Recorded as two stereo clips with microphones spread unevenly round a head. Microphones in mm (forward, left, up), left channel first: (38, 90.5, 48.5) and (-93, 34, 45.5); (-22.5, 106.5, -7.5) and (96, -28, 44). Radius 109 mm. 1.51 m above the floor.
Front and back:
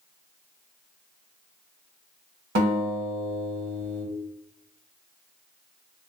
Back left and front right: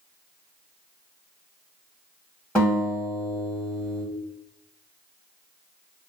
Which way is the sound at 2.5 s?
145° right.